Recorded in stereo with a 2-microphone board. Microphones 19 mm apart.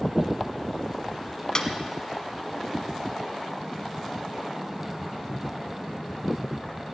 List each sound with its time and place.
1.6 s a snare drum: 35° left (ahead or behind), 1.2 m